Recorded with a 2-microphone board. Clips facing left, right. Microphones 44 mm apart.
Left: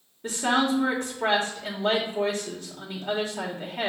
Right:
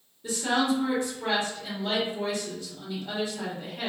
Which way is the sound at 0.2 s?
50° left (ahead or behind).